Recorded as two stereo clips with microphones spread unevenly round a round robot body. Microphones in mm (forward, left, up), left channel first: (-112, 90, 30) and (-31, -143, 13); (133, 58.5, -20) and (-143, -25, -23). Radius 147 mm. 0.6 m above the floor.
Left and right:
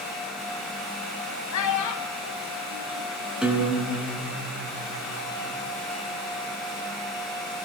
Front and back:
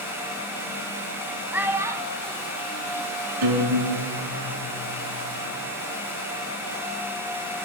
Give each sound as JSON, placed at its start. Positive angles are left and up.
{"t": 1.5, "sound": "a child speaking", "azimuth_deg": 110, "distance_m": 2.5}
{"t": 3.4, "sound": "a guitar", "azimuth_deg": -160, "distance_m": 8.0}